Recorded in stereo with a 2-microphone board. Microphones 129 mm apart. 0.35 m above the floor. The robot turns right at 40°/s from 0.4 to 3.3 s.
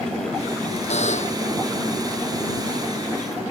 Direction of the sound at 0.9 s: 60° left (ahead or behind).